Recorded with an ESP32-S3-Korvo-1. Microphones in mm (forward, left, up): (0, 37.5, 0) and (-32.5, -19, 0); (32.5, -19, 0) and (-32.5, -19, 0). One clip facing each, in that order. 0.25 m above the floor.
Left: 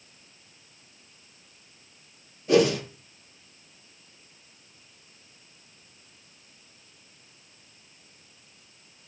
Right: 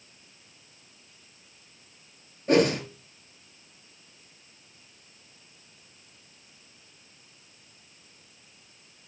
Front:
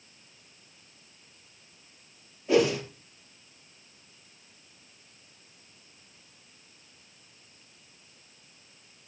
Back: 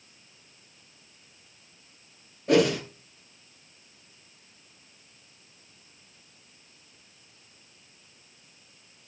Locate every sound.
2.5 s a whoosh: 165° right, 4.5 m